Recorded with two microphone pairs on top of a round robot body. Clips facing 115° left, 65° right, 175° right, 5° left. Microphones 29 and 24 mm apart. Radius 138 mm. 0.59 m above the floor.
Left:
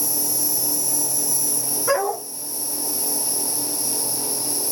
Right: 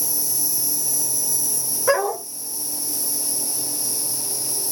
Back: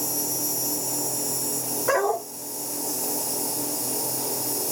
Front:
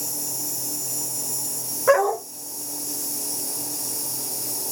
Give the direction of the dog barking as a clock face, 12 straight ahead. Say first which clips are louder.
Right 2 dB, front 5 dB; 12 o'clock.